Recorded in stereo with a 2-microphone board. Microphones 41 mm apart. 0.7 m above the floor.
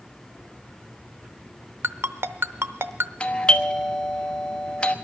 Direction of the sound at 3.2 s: 25° left (ahead or behind).